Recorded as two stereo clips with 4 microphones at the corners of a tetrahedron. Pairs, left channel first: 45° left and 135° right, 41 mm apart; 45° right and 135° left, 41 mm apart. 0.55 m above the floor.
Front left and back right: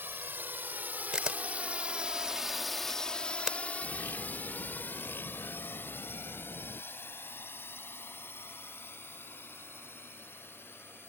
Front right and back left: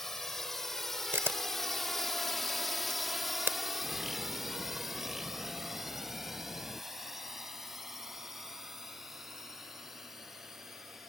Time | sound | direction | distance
0.0 | a drone | 125° right | ?
1.1 | a camera shutter | 155° left | ?
3.8 | a bird | 55° left | ?